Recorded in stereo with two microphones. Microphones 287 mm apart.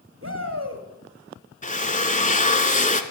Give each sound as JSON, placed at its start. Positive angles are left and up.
{"t": 0.2, "sound": "a shout", "side_deg": -45, "distance_m": 2.0}
{"t": 1.6, "sound": "a drill", "side_deg": 25, "distance_m": 0.9}